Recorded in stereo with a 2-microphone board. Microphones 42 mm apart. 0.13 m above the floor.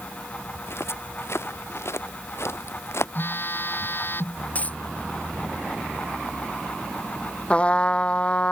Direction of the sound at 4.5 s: 30° left (ahead or behind).